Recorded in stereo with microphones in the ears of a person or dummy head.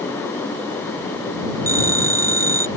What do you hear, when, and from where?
1.7 s a phone ringing: 20° right (ahead or behind)